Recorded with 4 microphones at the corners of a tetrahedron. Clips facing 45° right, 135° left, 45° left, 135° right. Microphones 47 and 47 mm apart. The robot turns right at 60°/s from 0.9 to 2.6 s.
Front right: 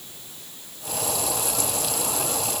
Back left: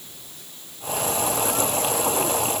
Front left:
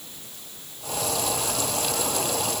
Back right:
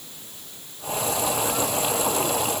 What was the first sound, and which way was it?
Only background noise.